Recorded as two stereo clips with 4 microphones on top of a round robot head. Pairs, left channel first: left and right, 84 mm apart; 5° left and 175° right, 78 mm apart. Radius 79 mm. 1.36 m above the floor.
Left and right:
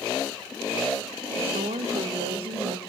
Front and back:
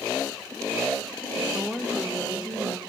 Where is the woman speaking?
90° right, 1.5 m.